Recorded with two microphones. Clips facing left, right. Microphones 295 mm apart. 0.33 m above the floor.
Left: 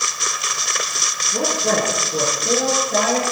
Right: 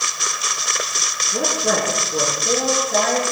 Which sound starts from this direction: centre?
A woman speaking, at 1.3 s.